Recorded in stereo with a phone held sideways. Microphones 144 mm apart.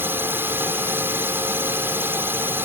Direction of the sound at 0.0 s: 15° right (ahead or behind).